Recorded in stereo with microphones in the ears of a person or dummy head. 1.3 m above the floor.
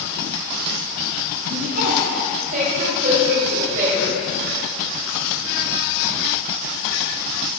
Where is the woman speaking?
45° right (ahead or behind), 7 m; by 4.2 s 40° right (ahead or behind), 6 m.